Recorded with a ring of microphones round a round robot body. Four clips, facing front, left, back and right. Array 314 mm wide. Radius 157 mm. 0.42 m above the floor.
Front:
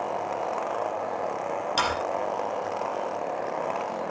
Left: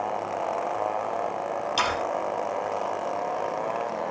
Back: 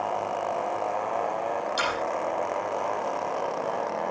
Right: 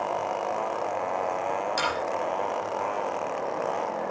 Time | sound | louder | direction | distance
1.8 | sawing | left 2 dB, front 4 dB | 15° left | 5 m